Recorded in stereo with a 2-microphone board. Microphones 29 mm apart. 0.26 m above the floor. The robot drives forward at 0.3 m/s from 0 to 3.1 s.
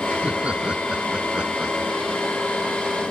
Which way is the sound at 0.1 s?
45° right (ahead or behind).